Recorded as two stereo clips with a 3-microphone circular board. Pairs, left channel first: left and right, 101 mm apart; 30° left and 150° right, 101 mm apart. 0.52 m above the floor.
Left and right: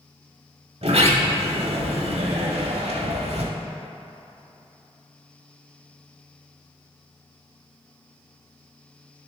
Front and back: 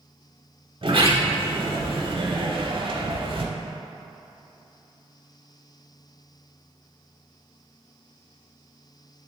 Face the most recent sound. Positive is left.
turn(degrees=-115)